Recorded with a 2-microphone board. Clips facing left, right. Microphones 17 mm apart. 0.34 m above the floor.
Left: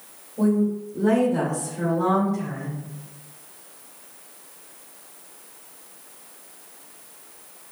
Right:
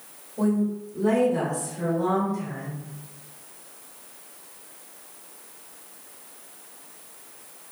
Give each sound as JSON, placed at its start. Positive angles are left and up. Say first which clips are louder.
{"t": 0.4, "sound": "a woman speaking", "louder": "left 3 dB", "side_deg": -20, "distance_m": 1.4}